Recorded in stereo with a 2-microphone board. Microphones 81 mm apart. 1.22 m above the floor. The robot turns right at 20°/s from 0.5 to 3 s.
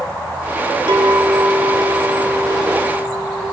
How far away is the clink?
About 3 m.